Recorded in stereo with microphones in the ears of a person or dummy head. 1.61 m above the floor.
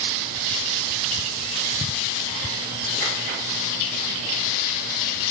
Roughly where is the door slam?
No door slam in this recording.